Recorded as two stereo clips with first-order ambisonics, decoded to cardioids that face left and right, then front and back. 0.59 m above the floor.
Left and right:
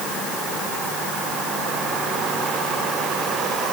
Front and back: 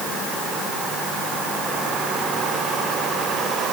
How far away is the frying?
I don't hear frying.